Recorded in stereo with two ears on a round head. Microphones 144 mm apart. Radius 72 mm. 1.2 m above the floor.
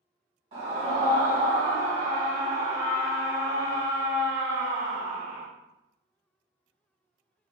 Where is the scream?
35° right (ahead or behind), 1.7 m.